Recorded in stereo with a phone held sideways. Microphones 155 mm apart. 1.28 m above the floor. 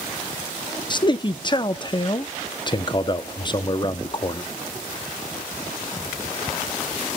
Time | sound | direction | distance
0.9 | a man speaking | 30° left (ahead or behind) | 0.7 m